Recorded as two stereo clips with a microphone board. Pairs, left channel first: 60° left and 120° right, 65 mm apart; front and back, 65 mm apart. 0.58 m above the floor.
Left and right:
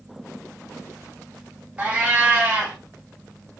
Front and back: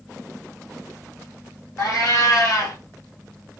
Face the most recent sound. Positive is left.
turn(degrees=-50)